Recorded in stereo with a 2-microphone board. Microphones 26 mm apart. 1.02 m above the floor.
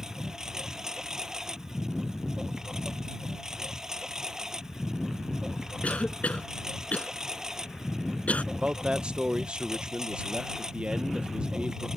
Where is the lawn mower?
20° right (ahead or behind).